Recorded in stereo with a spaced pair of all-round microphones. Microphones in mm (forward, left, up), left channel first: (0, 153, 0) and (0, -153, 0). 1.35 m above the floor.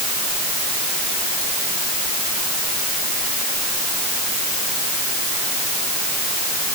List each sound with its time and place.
Only background noise.